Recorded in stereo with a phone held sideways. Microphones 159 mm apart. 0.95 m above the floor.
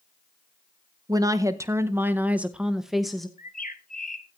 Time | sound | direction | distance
1.1 | a woman speaking | 20° right (ahead or behind) | 0.9 m
3.4 | a bird | 60° left (ahead or behind) | 1.2 m